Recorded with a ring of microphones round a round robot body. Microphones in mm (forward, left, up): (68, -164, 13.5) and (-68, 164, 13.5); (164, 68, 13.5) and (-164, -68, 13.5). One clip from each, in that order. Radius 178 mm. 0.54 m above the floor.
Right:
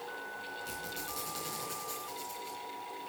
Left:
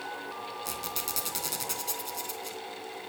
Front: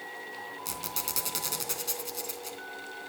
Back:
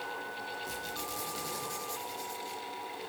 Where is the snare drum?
No snare drum in this recording.